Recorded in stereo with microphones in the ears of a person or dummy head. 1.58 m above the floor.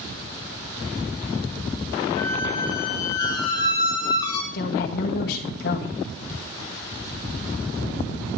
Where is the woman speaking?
65° left (ahead or behind), 1.8 m.